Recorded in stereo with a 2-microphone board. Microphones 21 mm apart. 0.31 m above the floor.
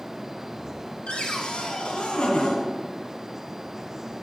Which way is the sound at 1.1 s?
70° left (ahead or behind).